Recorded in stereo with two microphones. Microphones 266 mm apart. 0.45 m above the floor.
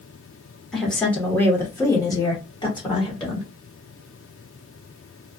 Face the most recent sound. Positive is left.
turn(degrees=20)  # may be behind; listen again after turning